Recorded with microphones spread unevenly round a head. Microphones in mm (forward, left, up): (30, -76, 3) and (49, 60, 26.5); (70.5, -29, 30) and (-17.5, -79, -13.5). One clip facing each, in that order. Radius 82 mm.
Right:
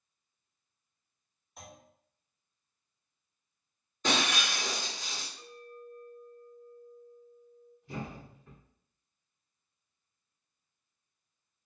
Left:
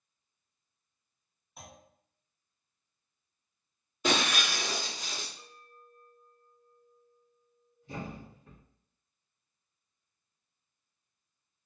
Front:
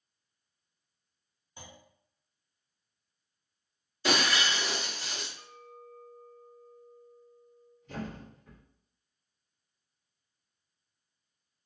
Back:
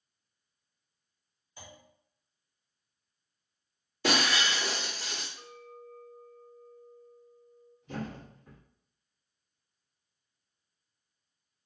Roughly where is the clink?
Left.